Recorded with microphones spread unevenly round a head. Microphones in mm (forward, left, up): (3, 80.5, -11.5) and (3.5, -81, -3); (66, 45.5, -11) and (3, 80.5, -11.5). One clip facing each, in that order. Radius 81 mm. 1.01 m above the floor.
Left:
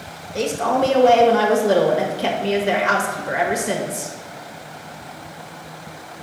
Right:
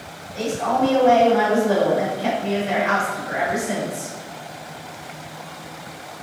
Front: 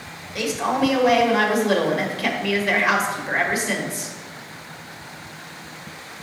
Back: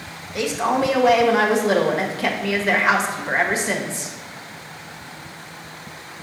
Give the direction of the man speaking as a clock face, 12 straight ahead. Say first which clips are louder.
Left 2 dB, back 1 dB; 9 o'clock.